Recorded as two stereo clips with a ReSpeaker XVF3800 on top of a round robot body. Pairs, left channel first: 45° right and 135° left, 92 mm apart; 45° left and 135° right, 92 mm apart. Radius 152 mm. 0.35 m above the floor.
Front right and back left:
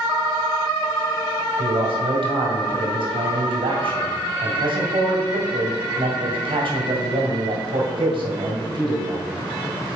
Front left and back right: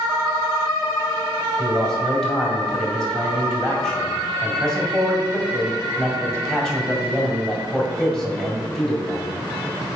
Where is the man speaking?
130° left, 2 m.